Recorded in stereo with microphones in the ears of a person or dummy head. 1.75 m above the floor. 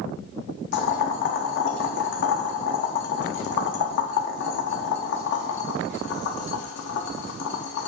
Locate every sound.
0.7 s boiling: 55° left (ahead or behind), 1.0 m